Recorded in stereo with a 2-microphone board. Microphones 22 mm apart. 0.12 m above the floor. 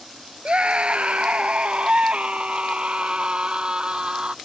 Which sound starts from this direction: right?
A scream, at 0.5 s.